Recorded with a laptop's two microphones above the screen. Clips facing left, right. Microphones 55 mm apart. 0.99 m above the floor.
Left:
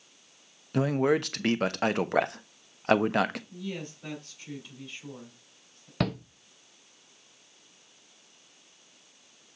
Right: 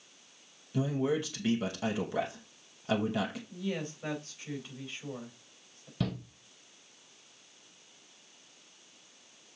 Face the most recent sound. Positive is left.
turn(degrees=55)  # may be behind; listen again after turning